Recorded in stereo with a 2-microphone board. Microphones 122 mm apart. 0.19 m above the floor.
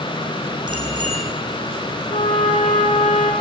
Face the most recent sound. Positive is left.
turn(degrees=80)